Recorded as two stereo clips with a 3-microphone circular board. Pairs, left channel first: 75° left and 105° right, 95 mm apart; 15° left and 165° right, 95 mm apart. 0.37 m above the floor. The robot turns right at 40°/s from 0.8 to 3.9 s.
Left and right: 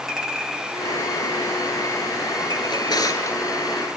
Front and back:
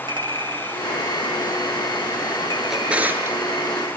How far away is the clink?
About 2.5 m.